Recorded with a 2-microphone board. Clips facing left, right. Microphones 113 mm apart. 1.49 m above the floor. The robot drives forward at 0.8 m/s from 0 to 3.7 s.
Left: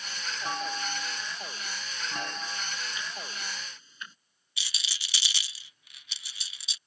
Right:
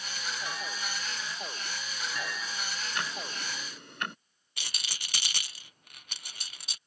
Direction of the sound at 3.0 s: 70° right (ahead or behind).